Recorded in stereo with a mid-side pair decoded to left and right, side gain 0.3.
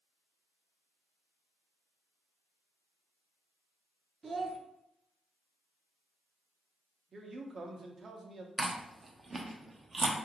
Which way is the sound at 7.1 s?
55° right.